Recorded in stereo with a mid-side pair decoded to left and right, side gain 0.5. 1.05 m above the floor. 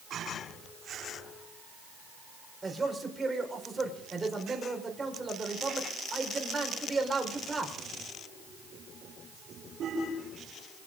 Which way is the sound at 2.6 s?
25° right.